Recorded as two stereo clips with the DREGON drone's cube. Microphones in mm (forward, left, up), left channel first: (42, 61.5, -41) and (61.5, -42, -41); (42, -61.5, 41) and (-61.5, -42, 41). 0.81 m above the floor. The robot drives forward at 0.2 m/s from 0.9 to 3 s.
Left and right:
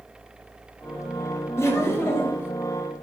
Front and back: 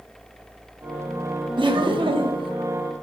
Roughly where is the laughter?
Behind left.